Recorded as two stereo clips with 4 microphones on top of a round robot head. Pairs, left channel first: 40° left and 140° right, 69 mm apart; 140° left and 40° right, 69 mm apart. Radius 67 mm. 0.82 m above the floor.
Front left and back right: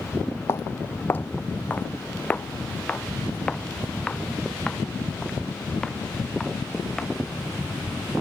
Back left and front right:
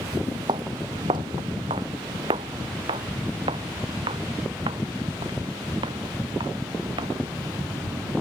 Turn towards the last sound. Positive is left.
turn(degrees=-40)